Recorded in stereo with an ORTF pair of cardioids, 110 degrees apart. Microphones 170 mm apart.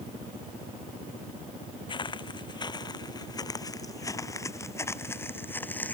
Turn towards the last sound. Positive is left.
turn(degrees=10)